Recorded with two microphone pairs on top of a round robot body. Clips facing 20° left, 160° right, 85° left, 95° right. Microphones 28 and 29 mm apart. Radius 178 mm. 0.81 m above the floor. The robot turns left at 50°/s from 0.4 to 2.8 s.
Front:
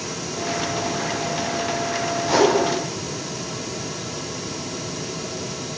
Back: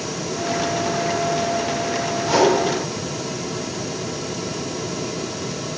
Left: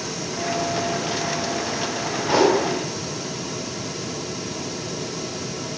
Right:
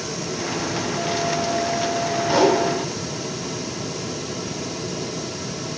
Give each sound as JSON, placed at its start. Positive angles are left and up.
{"t": 2.2, "sound": "a whoosh", "azimuth_deg": 125, "distance_m": 1.1}